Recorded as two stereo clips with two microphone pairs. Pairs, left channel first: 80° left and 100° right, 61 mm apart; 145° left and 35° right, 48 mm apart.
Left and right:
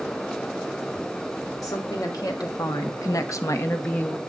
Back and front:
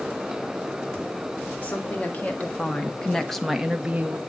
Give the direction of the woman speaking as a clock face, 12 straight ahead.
9 o'clock.